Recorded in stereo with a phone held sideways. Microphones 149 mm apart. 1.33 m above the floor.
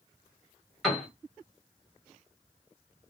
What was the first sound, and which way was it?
A piano, centre (ahead or behind).